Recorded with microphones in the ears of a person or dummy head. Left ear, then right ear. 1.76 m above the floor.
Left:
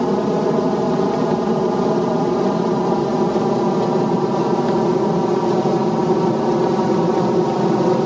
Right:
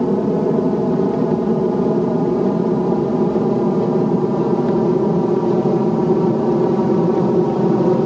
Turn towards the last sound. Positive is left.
turn(degrees=30)  # may be behind; listen again after turning